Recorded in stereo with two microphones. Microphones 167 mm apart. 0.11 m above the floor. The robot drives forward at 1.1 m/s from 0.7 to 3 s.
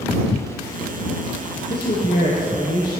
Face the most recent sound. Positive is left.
turn(degrees=60)  # may be behind; listen again after turning